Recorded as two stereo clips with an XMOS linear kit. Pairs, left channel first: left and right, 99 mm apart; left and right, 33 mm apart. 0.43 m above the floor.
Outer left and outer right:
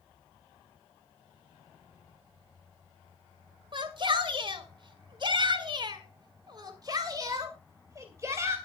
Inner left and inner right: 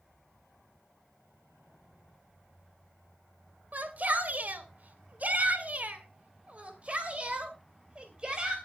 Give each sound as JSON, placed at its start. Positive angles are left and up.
{"t": 3.7, "sound": "a shout", "side_deg": -50, "distance_m": 2.5}